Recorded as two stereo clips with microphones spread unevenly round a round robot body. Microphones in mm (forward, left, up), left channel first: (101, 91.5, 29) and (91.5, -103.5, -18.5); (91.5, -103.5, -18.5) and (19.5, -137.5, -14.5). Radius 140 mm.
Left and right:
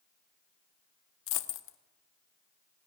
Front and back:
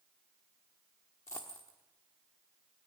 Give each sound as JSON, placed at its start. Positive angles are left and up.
{"t": 1.3, "sound": "a dropped coin", "azimuth_deg": 100, "distance_m": 0.9}